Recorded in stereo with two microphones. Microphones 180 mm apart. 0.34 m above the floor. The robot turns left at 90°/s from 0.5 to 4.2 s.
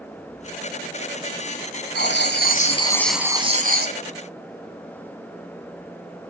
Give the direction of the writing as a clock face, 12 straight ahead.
9 o'clock.